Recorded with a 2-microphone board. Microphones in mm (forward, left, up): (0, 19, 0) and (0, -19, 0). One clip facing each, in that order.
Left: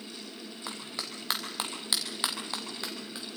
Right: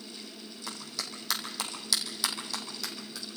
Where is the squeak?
I don't hear a squeak.